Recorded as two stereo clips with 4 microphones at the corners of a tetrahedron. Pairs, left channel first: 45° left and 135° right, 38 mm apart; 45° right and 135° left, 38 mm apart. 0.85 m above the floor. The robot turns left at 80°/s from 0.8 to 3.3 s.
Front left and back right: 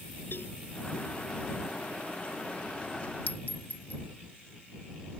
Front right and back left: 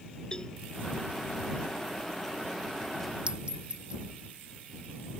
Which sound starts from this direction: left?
A clink, at 3.3 s.